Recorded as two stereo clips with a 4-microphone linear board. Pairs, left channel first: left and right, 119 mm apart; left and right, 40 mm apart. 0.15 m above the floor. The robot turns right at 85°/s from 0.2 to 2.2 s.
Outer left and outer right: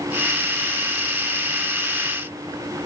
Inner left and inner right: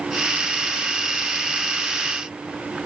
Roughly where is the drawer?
No drawer in this recording.